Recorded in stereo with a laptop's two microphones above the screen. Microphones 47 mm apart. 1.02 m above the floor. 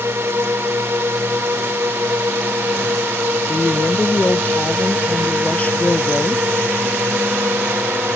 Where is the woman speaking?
30° left (ahead or behind).